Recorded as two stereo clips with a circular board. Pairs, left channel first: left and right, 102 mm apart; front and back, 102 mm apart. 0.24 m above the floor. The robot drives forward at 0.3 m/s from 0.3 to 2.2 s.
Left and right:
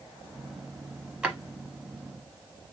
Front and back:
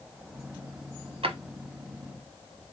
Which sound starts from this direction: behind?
A drawer, at 1.2 s.